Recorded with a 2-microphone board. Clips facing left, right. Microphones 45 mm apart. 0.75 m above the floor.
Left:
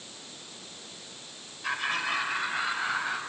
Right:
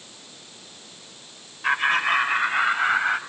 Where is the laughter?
45° right (ahead or behind), 3 m; by 3.2 s 50° right (ahead or behind), 4.5 m.